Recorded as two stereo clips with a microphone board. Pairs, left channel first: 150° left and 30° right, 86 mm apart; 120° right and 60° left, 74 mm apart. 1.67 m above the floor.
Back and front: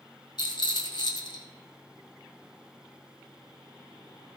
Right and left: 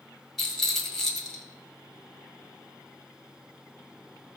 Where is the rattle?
150° left, 2 m.